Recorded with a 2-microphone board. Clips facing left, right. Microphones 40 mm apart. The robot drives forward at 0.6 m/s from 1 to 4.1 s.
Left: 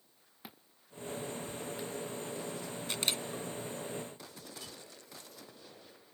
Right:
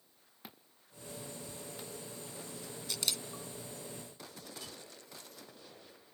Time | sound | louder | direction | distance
0.4 | a thud | left 1 dB | 5° left (ahead or behind) | ?
2.9 | a camera shutter | left 3 dB | 40° left (ahead or behind) | ?